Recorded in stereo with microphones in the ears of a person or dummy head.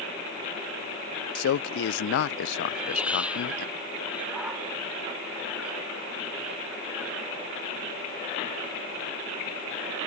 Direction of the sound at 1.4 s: 75° left (ahead or behind).